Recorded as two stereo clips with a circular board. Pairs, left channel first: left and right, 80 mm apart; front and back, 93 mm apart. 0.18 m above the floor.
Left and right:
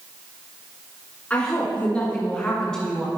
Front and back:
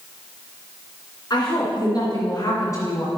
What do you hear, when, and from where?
1.3 s a woman speaking: 25° left, 2.5 m; by 3.1 s 10° left, 1.7 m